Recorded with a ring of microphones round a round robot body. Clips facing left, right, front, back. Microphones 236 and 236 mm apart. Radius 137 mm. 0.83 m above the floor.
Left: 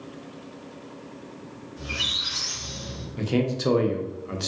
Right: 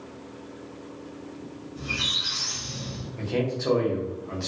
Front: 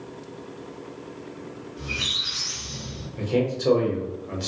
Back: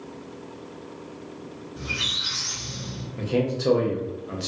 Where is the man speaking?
100° left, 0.6 m.